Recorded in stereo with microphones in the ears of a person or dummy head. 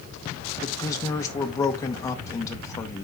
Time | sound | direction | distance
0.6 | a man speaking | 20° left (ahead or behind) | 1.3 m